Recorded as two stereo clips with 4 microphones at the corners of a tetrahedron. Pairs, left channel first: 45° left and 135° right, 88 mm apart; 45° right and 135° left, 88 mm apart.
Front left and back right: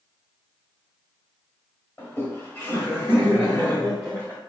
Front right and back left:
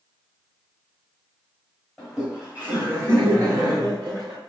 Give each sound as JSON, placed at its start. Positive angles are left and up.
{"t": 2.0, "sound": "laughter", "azimuth_deg": 50, "distance_m": 1.6}